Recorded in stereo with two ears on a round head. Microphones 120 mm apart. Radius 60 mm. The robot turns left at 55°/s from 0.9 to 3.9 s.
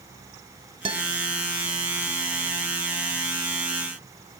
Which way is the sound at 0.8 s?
40° right (ahead or behind).